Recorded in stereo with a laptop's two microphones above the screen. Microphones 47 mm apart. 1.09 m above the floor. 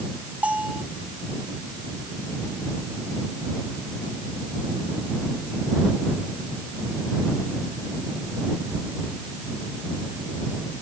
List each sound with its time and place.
0.4 s a bell: 30° right (ahead or behind)